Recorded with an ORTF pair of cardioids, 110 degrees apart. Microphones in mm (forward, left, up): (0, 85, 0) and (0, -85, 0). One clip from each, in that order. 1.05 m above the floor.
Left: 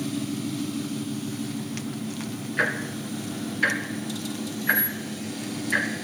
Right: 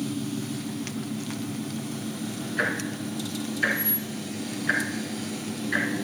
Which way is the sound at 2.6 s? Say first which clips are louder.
Left 2 dB; 10° left.